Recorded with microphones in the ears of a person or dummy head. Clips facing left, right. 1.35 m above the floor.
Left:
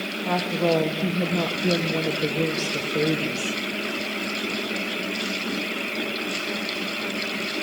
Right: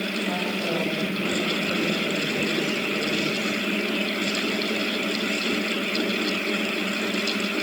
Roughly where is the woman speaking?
Left.